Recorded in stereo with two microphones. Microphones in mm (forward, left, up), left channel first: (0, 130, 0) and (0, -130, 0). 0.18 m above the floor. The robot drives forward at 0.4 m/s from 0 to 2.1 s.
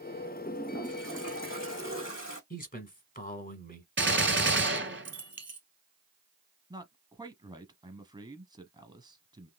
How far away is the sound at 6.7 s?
About 1.0 m.